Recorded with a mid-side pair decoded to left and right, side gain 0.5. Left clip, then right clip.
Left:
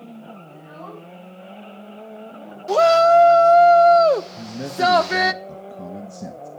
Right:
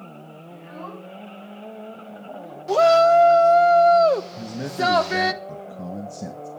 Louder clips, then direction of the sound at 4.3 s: Left 1 dB; 5° right.